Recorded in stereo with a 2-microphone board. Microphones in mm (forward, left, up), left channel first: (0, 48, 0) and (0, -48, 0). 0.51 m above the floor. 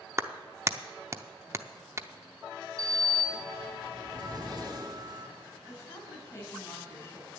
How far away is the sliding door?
About 1.6 m.